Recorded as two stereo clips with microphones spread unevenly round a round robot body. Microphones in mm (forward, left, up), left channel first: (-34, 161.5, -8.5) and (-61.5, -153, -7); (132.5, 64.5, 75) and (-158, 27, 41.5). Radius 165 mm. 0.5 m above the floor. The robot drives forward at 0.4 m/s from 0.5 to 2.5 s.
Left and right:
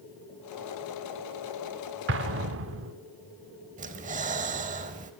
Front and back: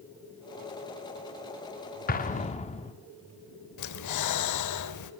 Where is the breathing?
25° right, 1.1 m.